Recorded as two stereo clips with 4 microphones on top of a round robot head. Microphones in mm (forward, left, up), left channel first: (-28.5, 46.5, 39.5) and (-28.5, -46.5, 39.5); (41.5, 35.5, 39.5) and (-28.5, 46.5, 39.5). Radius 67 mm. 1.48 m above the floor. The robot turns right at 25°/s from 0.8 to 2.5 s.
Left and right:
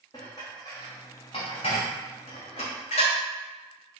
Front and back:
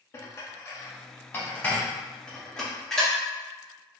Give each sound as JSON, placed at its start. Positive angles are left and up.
{"t": 0.1, "sound": "dishes clattering", "azimuth_deg": 30, "distance_m": 0.6}